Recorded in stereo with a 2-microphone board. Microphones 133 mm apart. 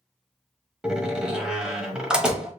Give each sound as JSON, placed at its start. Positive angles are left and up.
{"t": 0.8, "sound": "a door slam", "side_deg": -5, "distance_m": 0.9}